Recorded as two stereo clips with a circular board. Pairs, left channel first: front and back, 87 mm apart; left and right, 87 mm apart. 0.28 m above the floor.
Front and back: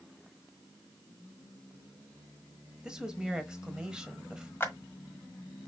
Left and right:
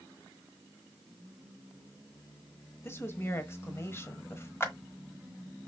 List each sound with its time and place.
2.8 s a woman speaking: 110° left, 1.1 m
4.6 s a clap: 50° left, 1.4 m